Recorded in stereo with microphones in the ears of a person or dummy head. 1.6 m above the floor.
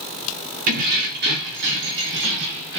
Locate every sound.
0.7 s keys jangling: 45° right (ahead or behind), 0.9 m; by 2.8 s 70° right (ahead or behind), 1.6 m